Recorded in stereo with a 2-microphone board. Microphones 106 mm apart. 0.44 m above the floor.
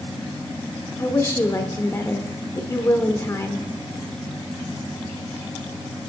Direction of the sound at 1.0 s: 25° left (ahead or behind).